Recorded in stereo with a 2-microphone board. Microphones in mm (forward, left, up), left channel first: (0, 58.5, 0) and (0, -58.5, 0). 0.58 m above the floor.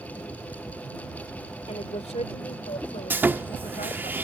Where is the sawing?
15° right (ahead or behind).